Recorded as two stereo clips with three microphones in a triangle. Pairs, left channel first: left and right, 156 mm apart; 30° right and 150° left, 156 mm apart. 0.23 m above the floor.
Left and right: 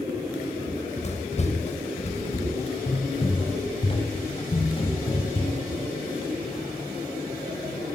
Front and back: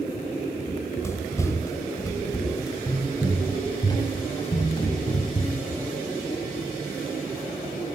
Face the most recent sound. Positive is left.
turn(degrees=30)